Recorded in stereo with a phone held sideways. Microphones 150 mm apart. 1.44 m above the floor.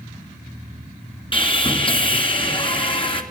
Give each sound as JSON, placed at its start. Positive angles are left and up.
{"t": 1.3, "sound": "sawing", "side_deg": 35, "distance_m": 2.5}